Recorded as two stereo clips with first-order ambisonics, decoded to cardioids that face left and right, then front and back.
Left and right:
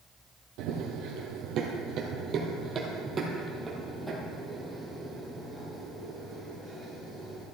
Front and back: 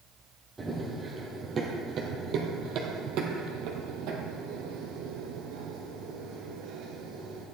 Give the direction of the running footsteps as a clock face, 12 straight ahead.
3 o'clock.